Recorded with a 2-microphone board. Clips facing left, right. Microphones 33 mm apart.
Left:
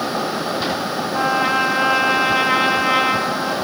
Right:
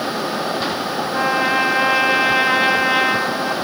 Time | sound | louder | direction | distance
1.1 | a trumpet | even | 10° right (ahead or behind) | 0.6 m